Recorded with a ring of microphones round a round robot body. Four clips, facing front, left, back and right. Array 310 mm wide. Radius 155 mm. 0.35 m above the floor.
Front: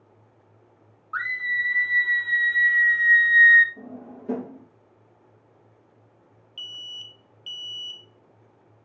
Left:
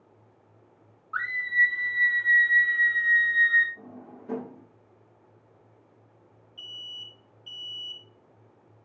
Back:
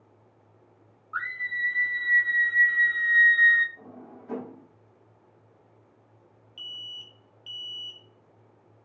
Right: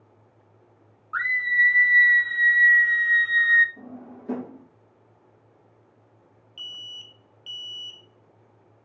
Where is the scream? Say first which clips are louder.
Right 3 dB, front 4 dB; 20° right, 4 m; by 3.7 s 75° right, 2 m.